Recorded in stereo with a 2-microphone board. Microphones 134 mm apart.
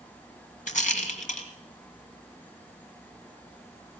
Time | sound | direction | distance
0.7 | a rattle | 70° left (ahead or behind) | 2 m